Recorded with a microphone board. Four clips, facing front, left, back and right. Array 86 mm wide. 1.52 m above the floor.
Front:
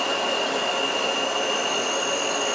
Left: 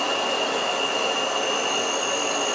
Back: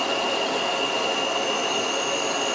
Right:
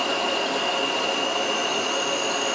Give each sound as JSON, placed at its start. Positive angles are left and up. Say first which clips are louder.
{"t": 0.0, "sound": "an insect", "louder": "even, even", "azimuth_deg": -115, "distance_m": 1.1}